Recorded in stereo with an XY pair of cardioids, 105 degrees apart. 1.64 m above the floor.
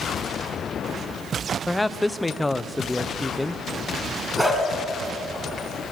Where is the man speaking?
10° left, 0.9 m.